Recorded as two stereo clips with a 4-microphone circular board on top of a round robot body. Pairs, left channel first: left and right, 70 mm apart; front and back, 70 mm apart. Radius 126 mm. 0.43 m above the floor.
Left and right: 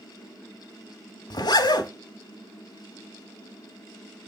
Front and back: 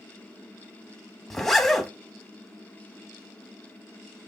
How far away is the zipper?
About 1.3 m.